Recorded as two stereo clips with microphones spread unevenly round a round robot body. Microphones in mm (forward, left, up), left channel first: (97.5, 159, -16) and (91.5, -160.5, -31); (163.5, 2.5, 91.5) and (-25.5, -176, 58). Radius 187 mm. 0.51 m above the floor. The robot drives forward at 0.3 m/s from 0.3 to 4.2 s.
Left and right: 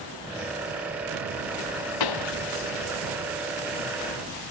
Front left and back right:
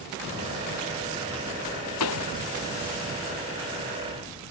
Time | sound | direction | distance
2.0 | a pop | 90° left | ?